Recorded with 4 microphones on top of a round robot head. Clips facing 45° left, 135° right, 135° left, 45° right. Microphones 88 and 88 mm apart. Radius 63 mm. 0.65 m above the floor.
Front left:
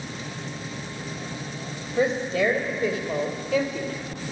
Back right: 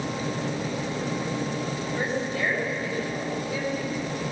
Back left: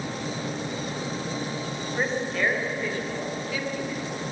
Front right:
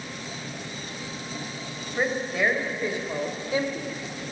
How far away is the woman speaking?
About 4.5 m.